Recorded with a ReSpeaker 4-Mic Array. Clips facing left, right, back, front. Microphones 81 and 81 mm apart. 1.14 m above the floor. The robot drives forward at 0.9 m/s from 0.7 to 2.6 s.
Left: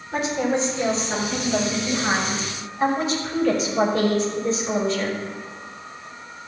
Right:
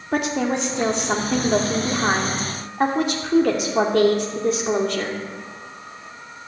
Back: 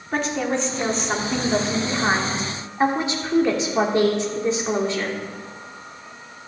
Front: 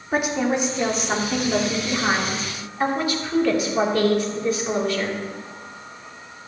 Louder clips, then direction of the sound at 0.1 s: Right 1 dB, front 2 dB; 80° right.